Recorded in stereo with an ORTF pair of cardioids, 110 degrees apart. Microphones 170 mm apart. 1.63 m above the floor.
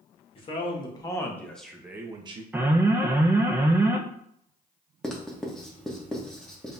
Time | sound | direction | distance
0.3 | a man speaking | 35° left | 1.4 m
2.5 | an alarm | 10° right | 0.7 m
5.0 | writing | 5° left | 1.0 m